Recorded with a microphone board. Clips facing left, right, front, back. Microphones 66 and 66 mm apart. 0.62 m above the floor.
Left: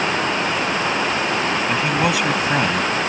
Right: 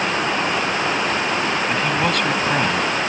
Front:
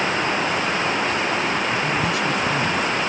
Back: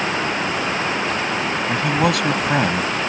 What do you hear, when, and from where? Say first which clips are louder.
1.7 s a man speaking: left 1 dB, back 3 dB; 170° left